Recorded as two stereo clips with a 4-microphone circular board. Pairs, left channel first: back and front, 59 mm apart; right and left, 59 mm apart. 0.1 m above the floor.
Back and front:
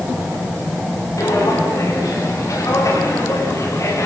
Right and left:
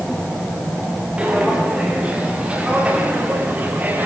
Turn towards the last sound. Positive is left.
turn(degrees=150)